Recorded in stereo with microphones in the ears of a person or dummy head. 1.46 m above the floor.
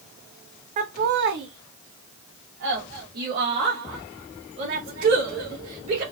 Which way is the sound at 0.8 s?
40° right (ahead or behind).